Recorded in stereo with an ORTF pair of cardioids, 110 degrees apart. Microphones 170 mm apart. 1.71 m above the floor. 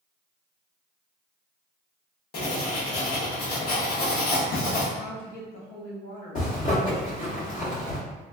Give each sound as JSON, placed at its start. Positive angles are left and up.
{"t": 2.3, "sound": "writing", "azimuth_deg": 65, "distance_m": 1.2}
{"t": 5.0, "sound": "a woman speaking", "azimuth_deg": 65, "distance_m": 1.1}
{"t": 6.3, "sound": "a zipper", "azimuth_deg": 55, "distance_m": 1.5}